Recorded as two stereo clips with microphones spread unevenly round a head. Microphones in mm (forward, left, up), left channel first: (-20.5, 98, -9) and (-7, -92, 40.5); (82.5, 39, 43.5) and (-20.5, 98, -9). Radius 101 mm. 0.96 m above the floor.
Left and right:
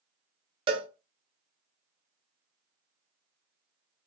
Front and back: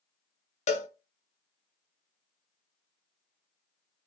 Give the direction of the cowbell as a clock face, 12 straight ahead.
1 o'clock.